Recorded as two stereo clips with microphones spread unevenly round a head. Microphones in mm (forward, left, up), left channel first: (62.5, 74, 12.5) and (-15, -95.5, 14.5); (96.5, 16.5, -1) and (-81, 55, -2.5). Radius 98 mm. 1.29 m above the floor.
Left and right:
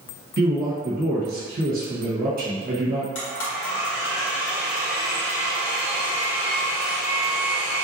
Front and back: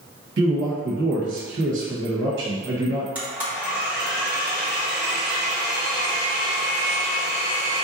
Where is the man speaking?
160° right, 1.1 m.